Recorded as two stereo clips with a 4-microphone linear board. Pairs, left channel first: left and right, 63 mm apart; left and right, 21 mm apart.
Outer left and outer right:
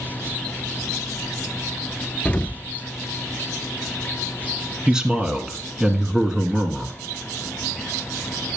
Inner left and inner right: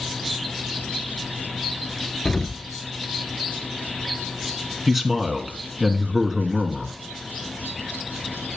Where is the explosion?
25° left (ahead or behind), 0.5 m.